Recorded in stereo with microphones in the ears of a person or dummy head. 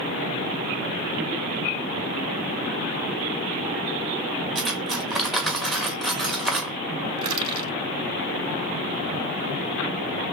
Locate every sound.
4.5 s cutlery clinking: centre (ahead or behind), 1.1 m
7.2 s crushing: 30° right (ahead or behind), 2.5 m